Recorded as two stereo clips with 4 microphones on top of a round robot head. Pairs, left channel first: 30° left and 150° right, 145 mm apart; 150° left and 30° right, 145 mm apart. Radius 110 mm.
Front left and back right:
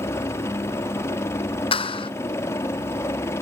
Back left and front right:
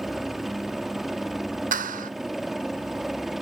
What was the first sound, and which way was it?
A helicopter, 55° left.